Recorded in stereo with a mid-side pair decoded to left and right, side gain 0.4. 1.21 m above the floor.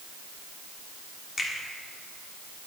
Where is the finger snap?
40° left, 1.7 m.